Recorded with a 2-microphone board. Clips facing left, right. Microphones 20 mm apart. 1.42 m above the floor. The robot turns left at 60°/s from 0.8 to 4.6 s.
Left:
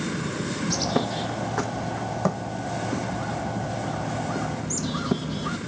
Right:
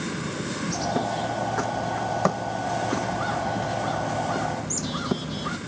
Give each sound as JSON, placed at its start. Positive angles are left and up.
{"t": 0.7, "sound": "a bird", "azimuth_deg": 55, "distance_m": 0.9}